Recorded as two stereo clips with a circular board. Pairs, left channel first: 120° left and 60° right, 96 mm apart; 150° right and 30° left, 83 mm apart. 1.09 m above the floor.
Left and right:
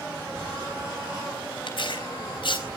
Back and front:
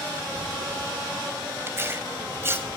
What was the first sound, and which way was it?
Tearing paper, 90° left.